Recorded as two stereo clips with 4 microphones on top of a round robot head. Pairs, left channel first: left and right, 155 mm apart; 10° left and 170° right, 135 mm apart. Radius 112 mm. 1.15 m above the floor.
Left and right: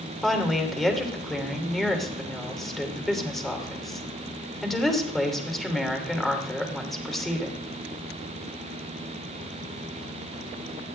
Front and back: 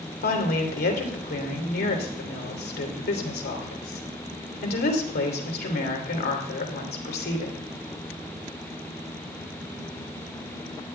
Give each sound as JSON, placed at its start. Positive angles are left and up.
{"t": 0.2, "sound": "a woman speaking", "azimuth_deg": 0, "distance_m": 3.0}